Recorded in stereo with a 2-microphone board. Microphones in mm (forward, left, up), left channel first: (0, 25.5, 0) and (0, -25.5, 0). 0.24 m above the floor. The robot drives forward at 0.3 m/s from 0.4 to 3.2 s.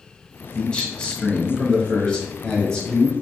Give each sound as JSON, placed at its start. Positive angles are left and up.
{"t": 0.6, "sound": "a man speaking", "side_deg": 15, "distance_m": 1.0}